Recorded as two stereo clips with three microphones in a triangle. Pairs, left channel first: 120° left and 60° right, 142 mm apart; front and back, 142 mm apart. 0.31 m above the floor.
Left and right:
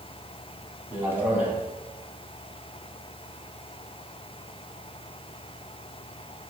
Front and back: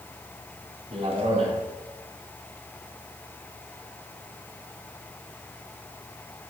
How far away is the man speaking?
About 2 m.